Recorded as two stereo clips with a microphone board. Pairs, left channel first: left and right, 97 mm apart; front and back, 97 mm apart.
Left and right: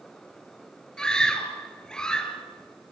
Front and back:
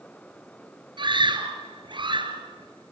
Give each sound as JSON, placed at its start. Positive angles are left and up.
{"t": 1.0, "sound": "a scream", "azimuth_deg": 170, "distance_m": 2.5}